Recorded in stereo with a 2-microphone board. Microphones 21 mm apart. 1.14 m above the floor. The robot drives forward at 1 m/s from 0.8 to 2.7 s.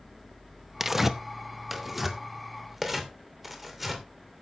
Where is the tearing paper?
15° right (ahead or behind), 0.6 m; by 4.0 s 5° right (ahead or behind), 2.5 m.